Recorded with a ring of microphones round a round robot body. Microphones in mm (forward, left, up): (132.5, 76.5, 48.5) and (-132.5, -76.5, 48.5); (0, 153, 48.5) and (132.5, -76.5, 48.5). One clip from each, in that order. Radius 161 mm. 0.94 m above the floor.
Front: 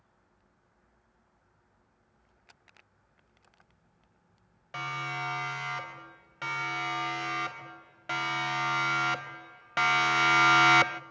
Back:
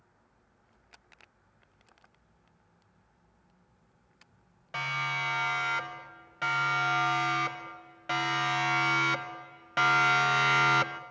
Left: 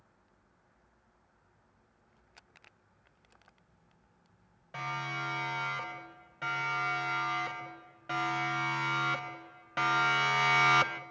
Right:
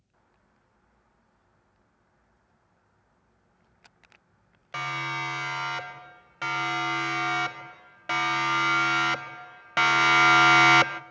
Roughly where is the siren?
Ahead right.